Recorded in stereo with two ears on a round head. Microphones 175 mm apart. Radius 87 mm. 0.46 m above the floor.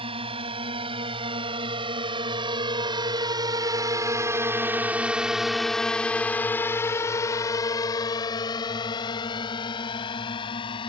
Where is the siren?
No siren in this recording.